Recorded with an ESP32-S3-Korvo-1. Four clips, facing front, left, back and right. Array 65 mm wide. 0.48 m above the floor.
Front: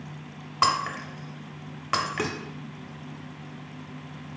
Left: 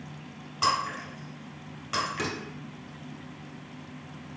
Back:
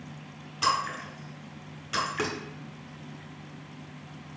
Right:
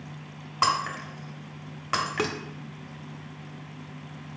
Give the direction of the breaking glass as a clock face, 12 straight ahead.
1 o'clock.